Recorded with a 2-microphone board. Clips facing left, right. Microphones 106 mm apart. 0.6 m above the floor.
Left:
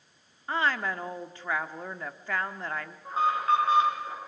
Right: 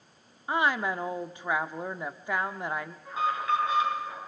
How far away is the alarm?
About 7 m.